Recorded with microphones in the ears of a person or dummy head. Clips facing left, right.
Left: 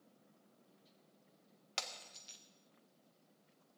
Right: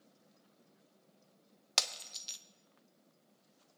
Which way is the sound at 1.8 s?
60° right (ahead or behind).